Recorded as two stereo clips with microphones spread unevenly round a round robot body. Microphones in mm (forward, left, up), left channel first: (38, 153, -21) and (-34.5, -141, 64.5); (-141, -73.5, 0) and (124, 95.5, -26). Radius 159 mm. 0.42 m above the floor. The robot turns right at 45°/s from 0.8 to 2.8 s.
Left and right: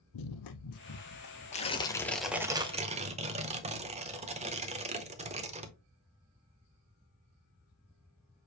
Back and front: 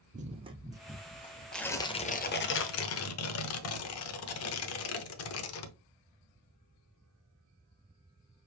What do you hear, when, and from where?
0.1 s running footsteps: 100° left, 0.7 m; by 2.5 s 155° right, 1.7 m
1.5 s tearing paper: 120° left, 0.9 m; by 5.7 s straight behind, 0.9 m